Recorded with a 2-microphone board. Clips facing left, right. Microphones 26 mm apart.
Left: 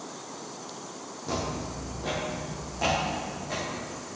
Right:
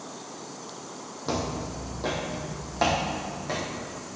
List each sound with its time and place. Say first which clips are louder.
1.3 s footsteps: right 2 dB; 45° right (ahead or behind), 3 m; by 3.7 s 55° right (ahead or behind), 4 m